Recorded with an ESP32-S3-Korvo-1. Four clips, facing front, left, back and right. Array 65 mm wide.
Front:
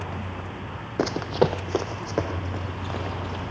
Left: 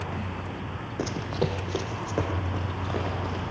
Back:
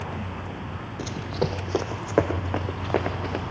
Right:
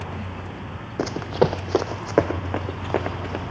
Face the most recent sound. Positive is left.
turn(degrees=-130)